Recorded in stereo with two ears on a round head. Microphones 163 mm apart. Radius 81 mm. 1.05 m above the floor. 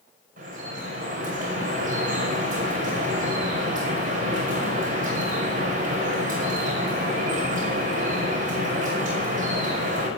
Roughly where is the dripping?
Right.